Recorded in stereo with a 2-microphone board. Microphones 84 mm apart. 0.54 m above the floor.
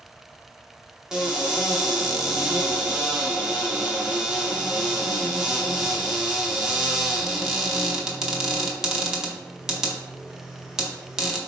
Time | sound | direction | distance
1.1 | a cupboard door | 10° right (ahead or behind) | 0.7 m